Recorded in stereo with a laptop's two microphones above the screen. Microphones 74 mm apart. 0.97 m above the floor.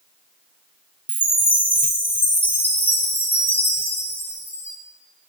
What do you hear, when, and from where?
1.1 s a chime: 25° left (ahead or behind), 0.7 m